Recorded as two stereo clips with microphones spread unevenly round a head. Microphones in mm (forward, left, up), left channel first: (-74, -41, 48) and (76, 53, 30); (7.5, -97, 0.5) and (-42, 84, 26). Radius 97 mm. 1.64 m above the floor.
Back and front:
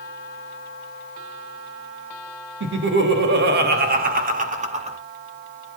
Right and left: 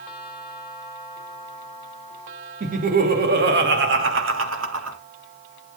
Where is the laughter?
55° left, 3 m; by 5.0 s 90° left, 3 m.